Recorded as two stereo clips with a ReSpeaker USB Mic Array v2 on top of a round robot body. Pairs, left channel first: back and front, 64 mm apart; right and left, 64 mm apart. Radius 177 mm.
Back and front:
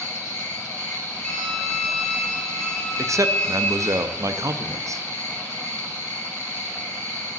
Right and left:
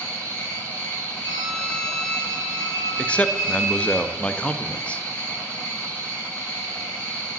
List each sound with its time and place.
0.0 s an insect: 145° right, 7.5 m
1.2 s a violin: 100° right, 2.5 m
3.0 s a man speaking: 20° right, 1.1 m